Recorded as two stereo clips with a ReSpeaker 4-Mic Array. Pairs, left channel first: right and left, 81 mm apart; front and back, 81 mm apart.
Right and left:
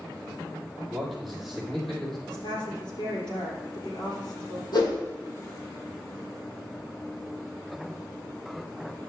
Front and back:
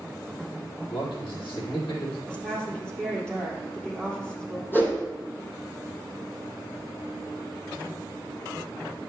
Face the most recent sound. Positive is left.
turn(degrees=-65)